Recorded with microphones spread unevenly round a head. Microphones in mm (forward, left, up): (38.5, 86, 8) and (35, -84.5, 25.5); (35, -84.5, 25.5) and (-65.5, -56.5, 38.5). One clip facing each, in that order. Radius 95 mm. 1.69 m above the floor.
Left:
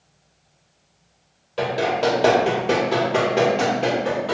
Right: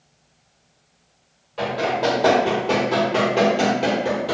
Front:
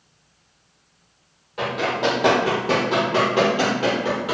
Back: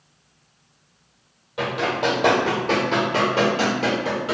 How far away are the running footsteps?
About 1.9 m.